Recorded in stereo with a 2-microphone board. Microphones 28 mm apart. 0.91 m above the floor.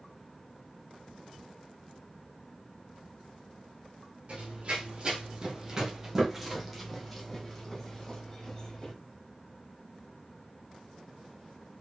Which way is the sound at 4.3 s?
50° right (ahead or behind).